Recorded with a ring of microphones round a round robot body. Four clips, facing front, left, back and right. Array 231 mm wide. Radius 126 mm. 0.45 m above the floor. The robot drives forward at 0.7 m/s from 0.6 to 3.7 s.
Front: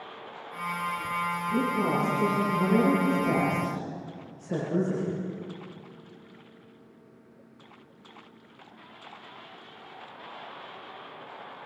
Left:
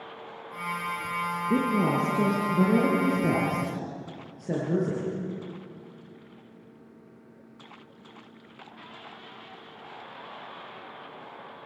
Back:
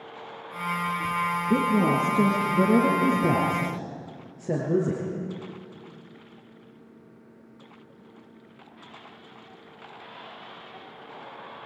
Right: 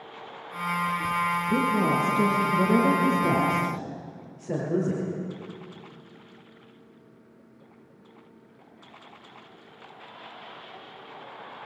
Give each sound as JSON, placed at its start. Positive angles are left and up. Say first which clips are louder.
{"t": 1.5, "sound": "a woman speaking", "louder": "left 1 dB, back 5 dB", "azimuth_deg": 150, "distance_m": 6.5}